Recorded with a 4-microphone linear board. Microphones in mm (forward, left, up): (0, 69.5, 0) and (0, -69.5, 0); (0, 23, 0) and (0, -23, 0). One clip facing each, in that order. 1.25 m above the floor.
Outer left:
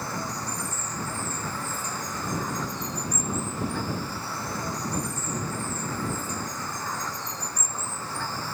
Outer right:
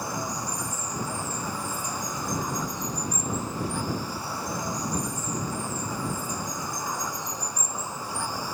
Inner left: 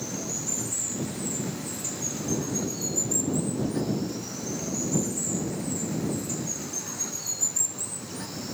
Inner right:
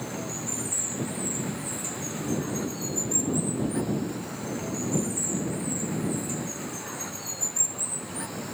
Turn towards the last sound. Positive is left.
turn(degrees=-15)  # may be behind; listen again after turning